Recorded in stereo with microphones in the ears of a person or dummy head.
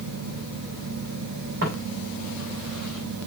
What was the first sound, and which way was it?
Footsteps, 55° right (ahead or behind).